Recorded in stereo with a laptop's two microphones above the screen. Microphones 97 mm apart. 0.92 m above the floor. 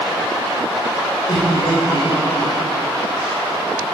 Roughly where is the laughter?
Left.